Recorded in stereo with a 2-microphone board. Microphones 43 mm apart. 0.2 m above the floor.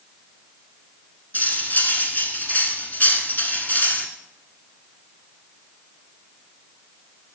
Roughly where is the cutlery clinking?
Left.